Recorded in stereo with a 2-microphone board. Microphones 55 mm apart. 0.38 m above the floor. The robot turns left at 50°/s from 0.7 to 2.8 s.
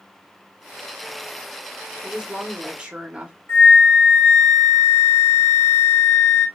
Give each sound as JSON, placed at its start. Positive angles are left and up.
{"t": 2.0, "sound": "a woman speaking", "side_deg": -10, "distance_m": 0.8}
{"t": 3.5, "sound": "a flute", "side_deg": 55, "distance_m": 2.5}